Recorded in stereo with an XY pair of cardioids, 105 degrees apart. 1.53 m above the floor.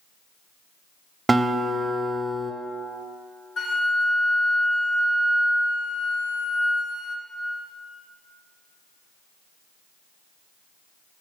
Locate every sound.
1.3 s a guitar: 20° right, 0.7 m
3.6 s a flute: 70° left, 1.2 m